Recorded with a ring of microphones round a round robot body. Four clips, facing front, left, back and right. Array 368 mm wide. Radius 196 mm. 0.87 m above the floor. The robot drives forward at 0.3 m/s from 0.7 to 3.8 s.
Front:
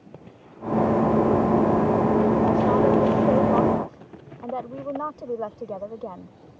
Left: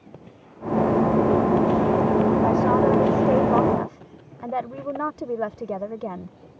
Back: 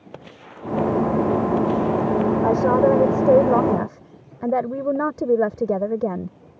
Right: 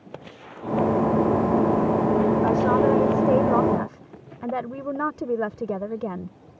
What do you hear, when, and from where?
2.4 s a woman speaking: 165° right